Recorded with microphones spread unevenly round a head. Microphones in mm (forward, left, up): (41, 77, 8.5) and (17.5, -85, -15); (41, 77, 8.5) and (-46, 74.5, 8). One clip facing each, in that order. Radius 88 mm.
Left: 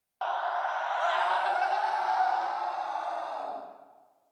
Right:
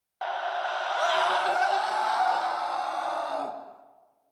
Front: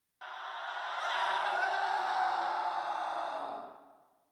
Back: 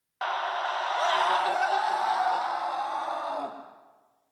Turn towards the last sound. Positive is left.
turn(degrees=-135)